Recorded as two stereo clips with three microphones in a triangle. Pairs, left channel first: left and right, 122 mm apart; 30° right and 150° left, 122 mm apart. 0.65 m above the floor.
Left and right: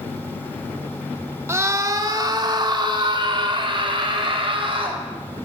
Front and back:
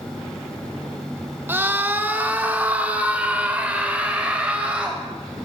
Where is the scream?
145° right, 1.5 m; by 5.0 s 130° right, 4.5 m.